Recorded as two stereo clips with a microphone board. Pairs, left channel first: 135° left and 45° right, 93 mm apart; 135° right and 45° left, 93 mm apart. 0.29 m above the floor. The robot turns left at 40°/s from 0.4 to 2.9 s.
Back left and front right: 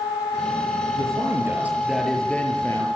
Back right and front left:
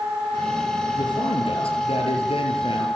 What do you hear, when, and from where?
0.9 s a man speaking: 90° right, 7.5 m; by 2.9 s 170° right, 7.5 m